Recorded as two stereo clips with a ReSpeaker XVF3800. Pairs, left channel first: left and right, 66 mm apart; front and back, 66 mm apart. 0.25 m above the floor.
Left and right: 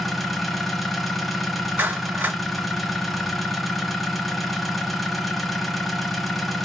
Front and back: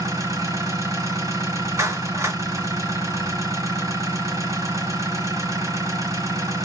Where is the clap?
140° right, 2 m.